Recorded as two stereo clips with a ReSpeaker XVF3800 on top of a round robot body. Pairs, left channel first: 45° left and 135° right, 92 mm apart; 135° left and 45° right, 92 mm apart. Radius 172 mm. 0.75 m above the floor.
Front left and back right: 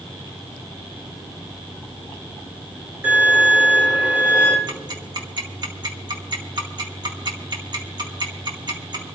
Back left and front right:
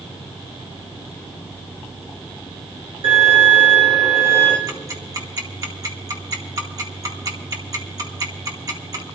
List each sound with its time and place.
3.0 s a violin: 70° right, 5 m
4.7 s ticking: 95° right, 2 m